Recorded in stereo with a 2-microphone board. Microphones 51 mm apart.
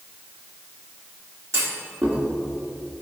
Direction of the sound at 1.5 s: 70° right (ahead or behind).